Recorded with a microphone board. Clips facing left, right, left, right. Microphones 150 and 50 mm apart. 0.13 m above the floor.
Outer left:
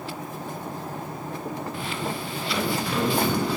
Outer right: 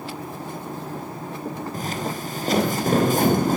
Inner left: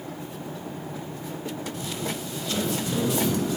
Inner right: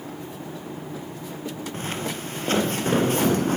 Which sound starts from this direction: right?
Footsteps, at 1.7 s.